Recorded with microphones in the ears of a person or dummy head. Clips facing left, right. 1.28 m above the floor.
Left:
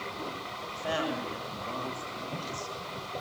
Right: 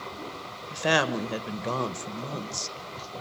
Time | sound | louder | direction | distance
0.7 | a woman speaking | right 6 dB | 75° right (ahead or behind) | 1.4 m